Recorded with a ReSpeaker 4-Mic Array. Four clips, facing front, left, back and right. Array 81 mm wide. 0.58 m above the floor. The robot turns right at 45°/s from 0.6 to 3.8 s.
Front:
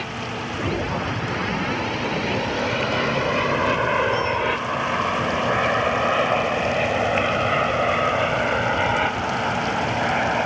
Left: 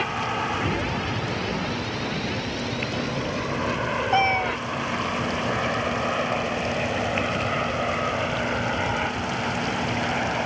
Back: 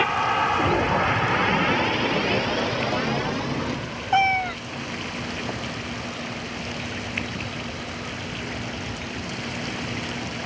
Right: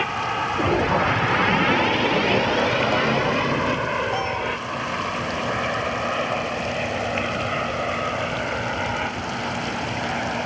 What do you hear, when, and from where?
0.0 s an aircraft: 170° right; by 10.5 s straight ahead
4.1 s a cat meowing: 150° left